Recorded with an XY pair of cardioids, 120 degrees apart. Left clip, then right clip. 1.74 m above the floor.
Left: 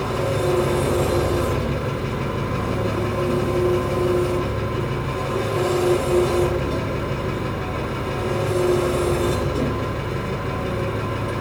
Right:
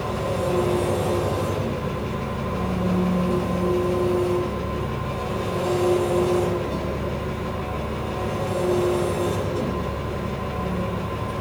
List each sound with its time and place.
0.0 s an engine running: 55° left, 3 m